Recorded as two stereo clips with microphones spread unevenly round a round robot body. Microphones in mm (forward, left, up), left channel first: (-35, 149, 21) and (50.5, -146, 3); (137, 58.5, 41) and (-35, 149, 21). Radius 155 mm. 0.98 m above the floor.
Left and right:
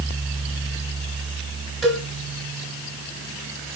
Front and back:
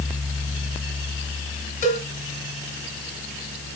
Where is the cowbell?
15° left, 2.5 m.